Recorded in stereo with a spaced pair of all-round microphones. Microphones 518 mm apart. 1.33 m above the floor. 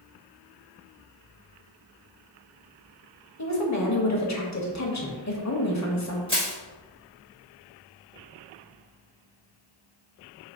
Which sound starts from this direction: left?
A woman speaking, at 3.4 s.